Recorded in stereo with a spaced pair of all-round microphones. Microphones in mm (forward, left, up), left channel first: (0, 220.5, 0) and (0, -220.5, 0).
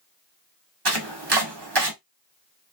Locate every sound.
0.8 s chopping: 60° right (ahead or behind), 1.0 m